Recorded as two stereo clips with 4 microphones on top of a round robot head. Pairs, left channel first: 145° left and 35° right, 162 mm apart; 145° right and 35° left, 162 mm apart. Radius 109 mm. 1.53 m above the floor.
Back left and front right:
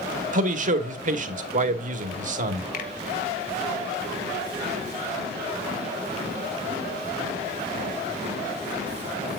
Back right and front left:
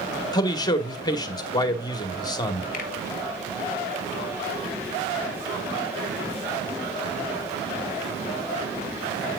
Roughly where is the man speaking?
Right.